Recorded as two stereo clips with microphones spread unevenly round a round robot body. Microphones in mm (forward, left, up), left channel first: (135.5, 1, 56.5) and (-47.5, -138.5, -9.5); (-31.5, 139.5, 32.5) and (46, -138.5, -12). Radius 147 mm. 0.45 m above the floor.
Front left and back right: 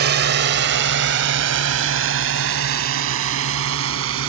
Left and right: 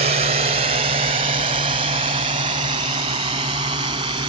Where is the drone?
135° right; by 4.3 s 145° right.